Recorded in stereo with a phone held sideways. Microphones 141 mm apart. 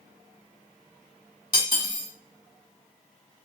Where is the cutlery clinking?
35° left (ahead or behind), 1.4 m.